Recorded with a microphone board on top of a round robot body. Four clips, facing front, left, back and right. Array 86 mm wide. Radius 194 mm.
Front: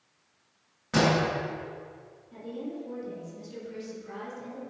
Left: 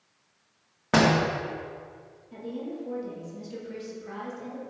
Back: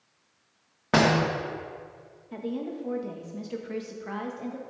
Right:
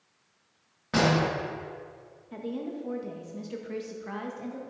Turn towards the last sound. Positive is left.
turn(degrees=-150)